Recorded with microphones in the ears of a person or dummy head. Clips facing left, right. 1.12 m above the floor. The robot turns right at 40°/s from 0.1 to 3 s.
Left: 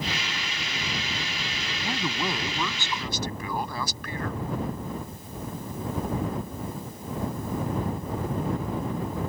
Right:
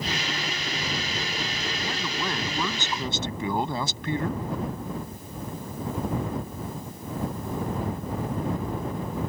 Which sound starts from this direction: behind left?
A man speaking, at 1.9 s.